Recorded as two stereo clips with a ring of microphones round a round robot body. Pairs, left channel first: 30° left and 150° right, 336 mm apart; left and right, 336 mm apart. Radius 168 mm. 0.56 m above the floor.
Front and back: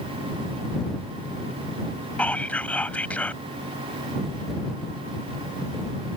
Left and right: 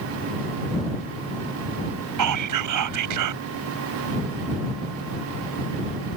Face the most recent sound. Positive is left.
turn(degrees=-55)